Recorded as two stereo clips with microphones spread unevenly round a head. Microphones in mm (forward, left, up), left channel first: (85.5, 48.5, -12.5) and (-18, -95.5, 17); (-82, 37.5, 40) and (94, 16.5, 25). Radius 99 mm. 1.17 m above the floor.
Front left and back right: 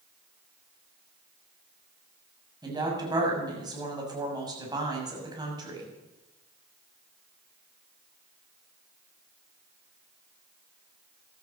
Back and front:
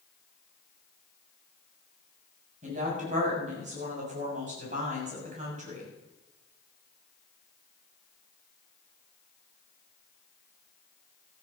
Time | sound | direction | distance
2.6 | a woman speaking | 60° right | 7 m